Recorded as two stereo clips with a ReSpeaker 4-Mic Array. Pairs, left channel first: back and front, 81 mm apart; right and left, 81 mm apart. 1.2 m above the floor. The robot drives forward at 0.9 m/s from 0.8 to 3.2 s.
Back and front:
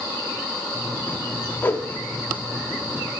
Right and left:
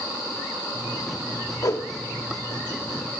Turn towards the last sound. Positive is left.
turn(degrees=-160)